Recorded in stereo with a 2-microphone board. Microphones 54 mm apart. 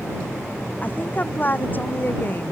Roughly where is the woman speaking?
Left.